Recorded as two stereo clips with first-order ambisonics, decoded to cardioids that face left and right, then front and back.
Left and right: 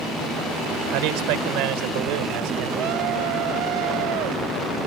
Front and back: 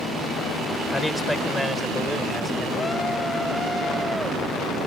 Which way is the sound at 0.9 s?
80° right.